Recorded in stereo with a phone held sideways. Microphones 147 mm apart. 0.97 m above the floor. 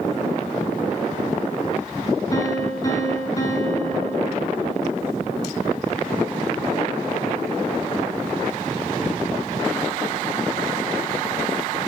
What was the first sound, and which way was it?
A piano, 25° left (ahead or behind).